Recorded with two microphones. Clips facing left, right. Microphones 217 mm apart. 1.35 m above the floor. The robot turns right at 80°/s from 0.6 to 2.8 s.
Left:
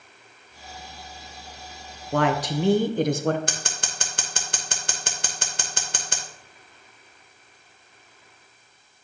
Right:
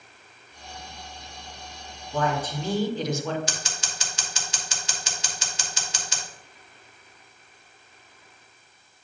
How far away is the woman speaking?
About 0.7 m.